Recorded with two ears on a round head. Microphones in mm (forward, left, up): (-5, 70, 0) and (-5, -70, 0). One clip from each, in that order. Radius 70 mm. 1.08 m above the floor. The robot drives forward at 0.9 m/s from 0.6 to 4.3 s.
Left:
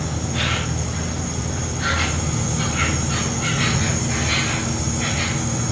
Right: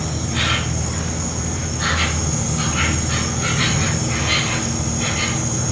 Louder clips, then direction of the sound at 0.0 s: Right 2 dB; 35° right (ahead or behind).